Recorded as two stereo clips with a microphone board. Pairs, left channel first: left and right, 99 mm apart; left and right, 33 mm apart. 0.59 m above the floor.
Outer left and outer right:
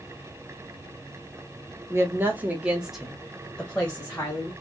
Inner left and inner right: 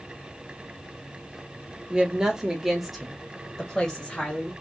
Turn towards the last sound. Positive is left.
turn(degrees=20)  # may be behind; listen again after turning